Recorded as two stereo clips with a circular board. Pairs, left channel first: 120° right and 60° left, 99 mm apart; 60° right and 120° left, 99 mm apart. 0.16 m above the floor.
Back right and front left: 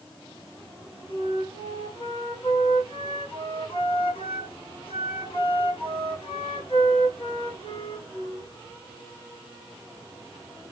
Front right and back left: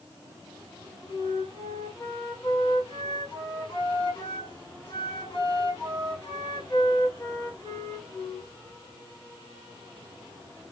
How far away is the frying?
I don't hear frying.